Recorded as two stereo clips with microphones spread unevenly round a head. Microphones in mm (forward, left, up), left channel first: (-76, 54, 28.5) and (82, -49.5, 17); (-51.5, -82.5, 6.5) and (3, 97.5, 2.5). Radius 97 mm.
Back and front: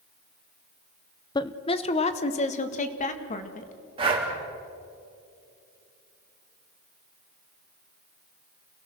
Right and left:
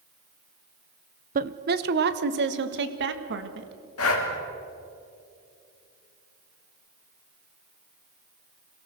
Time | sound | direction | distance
1.4 | a woman speaking | 80° left | 0.8 m
4.0 | breathing | 95° right | 3 m